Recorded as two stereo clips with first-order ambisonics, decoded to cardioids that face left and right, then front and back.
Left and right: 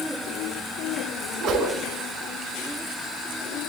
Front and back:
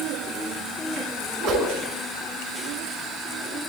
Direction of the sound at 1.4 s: 145° right.